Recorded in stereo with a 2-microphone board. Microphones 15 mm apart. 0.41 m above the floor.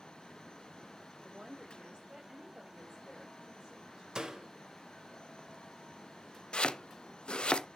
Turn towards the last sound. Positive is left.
turn(degrees=80)